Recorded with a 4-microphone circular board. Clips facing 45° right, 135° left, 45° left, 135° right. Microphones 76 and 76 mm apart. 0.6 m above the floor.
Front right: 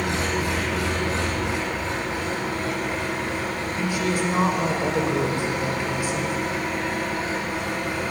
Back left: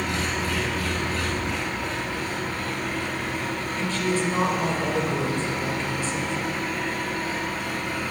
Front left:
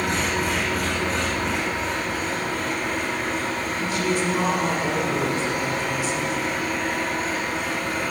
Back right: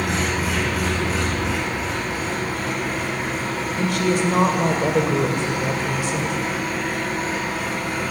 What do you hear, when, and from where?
0.0 s an engine running: 50° right, 7 m
3.8 s a woman speaking: 120° right, 2 m